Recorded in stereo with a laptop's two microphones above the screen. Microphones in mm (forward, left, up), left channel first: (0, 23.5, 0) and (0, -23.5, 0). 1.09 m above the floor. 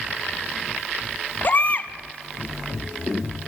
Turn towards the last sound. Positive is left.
turn(degrees=40)  # may be behind; listen again after turning